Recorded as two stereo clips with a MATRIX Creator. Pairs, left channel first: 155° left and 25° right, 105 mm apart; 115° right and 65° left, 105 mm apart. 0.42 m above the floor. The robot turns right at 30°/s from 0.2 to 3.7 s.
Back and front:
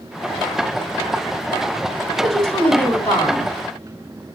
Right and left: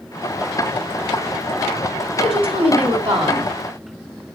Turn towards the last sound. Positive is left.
turn(degrees=110)